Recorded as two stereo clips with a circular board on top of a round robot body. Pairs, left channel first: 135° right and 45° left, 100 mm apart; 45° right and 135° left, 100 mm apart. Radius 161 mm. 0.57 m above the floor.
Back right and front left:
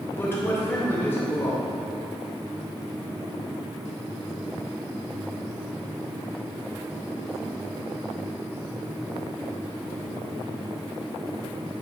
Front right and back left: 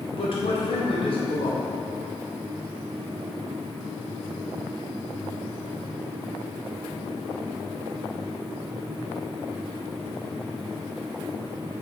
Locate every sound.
0.1 s a man speaking: 70° right, 2.5 m